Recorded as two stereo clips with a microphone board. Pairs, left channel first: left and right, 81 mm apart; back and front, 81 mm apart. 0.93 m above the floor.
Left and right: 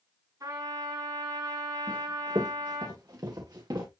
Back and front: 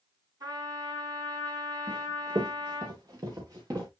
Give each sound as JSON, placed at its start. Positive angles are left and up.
{"t": 0.4, "sound": "a trumpet", "azimuth_deg": -45, "distance_m": 8.0}
{"t": 1.9, "sound": "running footsteps", "azimuth_deg": -40, "distance_m": 6.0}